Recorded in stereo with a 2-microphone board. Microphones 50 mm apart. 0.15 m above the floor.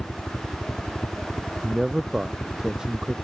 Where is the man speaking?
15° right (ahead or behind).